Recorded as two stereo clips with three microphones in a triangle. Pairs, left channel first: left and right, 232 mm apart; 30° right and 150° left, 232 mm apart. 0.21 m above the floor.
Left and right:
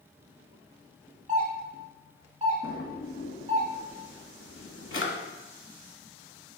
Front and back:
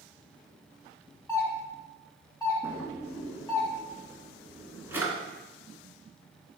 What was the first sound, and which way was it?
A doorbell, 95° right.